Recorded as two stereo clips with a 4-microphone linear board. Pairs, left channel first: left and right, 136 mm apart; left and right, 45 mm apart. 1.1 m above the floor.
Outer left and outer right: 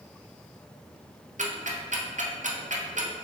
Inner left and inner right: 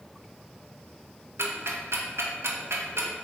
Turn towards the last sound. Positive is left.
turn(degrees=-65)  # may be behind; listen again after turning